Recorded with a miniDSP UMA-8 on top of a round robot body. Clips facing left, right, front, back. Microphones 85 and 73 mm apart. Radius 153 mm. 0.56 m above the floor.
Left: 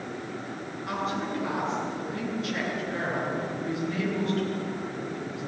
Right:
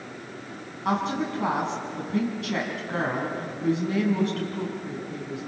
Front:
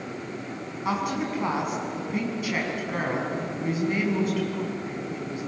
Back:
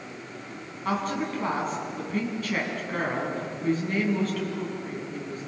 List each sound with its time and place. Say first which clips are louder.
0.8 s a woman speaking: right 5 dB, front 1 dB; 80° right, 6.5 m